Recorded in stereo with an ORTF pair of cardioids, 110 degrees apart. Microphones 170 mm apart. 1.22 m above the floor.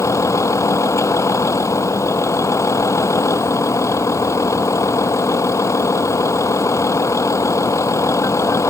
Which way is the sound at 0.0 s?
15° left.